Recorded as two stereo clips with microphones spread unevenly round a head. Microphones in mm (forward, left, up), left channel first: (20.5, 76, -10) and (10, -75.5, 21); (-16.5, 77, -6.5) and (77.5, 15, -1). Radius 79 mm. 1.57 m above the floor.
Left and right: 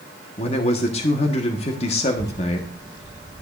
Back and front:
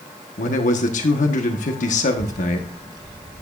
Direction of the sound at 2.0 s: 20° left.